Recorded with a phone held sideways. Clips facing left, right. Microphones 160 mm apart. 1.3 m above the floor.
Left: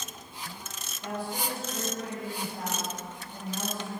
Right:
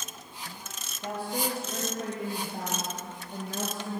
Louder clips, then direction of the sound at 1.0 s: Right 2 dB; 30° right (ahead or behind).